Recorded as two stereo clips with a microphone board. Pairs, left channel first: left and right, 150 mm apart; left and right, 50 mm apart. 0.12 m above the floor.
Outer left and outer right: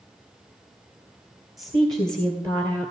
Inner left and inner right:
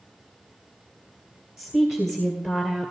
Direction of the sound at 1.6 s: 25° right (ahead or behind).